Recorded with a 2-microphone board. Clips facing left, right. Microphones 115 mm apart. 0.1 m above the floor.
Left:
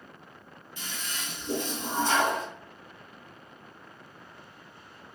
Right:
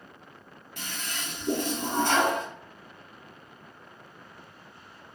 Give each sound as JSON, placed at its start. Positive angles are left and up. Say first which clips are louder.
{"t": 0.8, "sound": "a toilet flushing", "louder": "right 2 dB", "side_deg": -60, "distance_m": 1.2}